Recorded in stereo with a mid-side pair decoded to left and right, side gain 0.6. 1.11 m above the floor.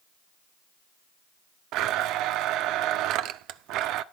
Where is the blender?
65° right, 0.5 m.